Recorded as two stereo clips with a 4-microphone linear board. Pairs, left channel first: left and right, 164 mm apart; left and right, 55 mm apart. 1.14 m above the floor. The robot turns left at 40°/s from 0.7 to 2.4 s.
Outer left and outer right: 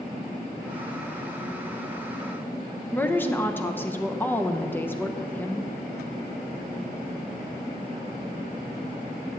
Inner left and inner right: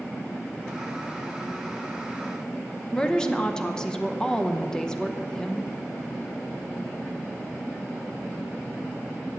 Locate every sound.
2.9 s a woman speaking: 10° left (ahead or behind), 0.9 m